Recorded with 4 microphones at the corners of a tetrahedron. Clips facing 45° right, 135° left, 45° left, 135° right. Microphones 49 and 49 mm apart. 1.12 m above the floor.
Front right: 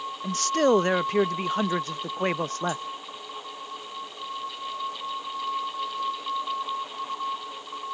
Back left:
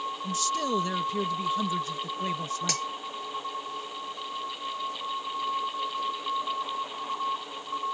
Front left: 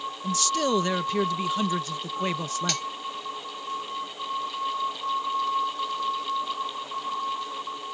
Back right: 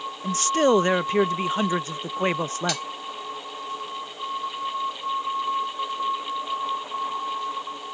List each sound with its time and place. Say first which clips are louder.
0.2 s a man speaking: front right 8 dB, back right 5 dB; 80° right
2.7 s cutlery clinking: even, back right 2 dB; 135° left